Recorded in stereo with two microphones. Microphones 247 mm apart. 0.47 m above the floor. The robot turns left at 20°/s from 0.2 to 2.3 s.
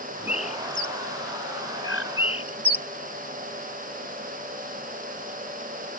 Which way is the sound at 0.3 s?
25° left (ahead or behind).